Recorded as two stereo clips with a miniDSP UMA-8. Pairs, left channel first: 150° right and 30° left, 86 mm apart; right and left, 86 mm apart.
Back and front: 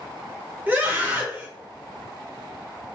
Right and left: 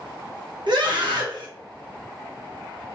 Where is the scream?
95° left, 1.4 m.